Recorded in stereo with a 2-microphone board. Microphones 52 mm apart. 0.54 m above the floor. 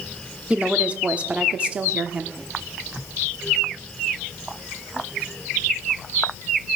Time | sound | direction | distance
0.5 | a woman speaking | 25° right (ahead or behind) | 1.0 m